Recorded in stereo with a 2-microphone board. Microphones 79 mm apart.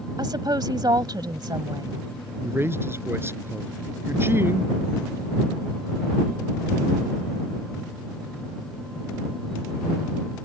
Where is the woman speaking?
65° right (ahead or behind).